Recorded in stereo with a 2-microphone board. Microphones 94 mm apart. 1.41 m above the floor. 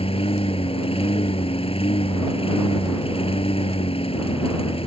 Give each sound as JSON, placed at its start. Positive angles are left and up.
{"t": 0.0, "sound": "a lawn mower", "side_deg": 80}